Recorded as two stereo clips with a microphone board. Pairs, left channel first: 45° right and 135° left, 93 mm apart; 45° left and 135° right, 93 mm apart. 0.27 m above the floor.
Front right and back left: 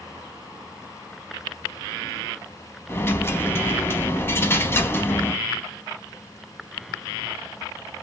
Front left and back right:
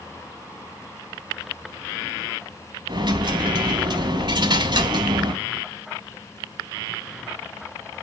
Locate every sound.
2.9 s a dropped coin: 110° right, 0.8 m